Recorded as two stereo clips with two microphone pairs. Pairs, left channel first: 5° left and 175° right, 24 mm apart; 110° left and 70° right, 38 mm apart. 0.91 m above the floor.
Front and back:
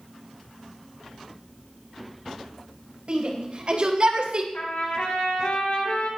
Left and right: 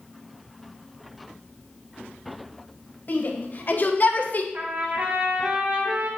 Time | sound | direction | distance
3.1 | a shout | 145° left | 4.5 m
4.5 | a trumpet | 20° right | 7.5 m